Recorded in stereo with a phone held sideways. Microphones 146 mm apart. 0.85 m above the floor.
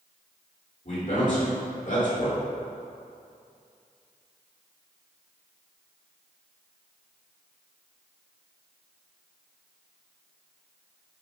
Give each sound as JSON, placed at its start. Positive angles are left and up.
{"t": 0.8, "sound": "a man speaking", "side_deg": 60, "distance_m": 1.8}